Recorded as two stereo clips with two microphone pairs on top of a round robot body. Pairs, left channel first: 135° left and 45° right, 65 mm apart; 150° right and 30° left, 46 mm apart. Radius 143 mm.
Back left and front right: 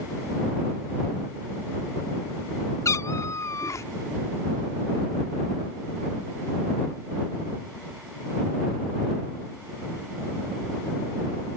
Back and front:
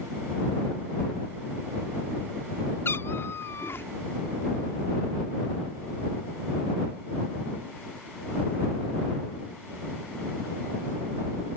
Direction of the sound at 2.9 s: 170° left.